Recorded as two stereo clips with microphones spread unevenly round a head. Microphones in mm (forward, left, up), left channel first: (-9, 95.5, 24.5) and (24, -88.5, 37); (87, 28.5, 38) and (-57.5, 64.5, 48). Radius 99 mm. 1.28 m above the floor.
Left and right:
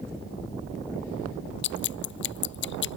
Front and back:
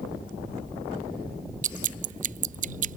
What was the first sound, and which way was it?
Dripping, 135° left.